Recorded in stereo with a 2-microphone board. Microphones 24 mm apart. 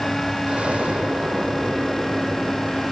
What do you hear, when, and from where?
0.5 s an explosion: 55° right (ahead or behind), 7.5 m